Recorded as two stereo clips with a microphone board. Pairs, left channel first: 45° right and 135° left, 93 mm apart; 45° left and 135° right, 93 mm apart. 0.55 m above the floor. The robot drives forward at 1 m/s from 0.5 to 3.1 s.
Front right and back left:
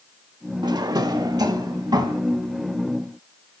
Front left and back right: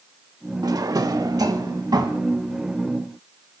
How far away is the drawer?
About 0.6 m.